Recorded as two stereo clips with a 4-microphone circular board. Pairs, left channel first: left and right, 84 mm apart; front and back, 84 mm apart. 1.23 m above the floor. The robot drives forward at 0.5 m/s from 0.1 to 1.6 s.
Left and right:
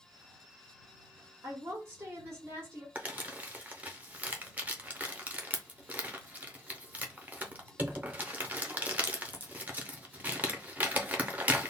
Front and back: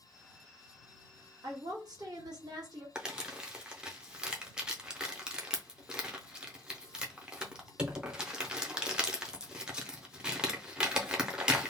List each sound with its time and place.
1.4 s a woman speaking: 145° right, 1.1 m
3.0 s crumpling: 120° right, 0.5 m